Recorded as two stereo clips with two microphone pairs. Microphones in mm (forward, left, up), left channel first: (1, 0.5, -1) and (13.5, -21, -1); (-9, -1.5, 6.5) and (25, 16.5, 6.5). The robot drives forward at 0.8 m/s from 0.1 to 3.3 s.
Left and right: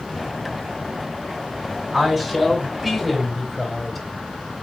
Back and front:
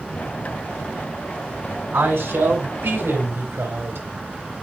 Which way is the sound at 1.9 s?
20° left.